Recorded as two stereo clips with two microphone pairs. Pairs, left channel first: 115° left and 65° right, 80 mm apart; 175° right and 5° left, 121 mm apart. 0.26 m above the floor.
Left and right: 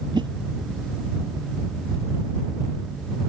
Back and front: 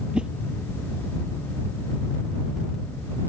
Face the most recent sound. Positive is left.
turn(degrees=-75)